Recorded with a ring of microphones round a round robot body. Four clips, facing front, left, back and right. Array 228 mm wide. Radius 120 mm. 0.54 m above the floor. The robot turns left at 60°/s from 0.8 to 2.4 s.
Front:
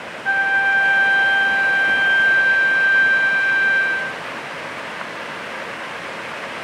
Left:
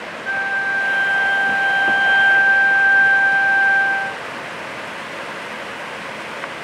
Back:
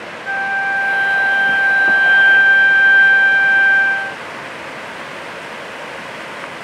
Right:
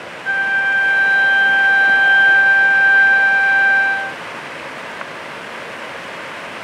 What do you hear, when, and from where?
0.2 s a flute: 35° right, 2.0 m; by 4.2 s 130° right, 2.0 m